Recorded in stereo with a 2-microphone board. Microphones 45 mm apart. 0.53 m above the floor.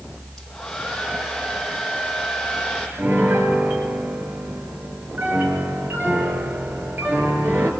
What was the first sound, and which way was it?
A hair dryer, 10° left (ahead or behind).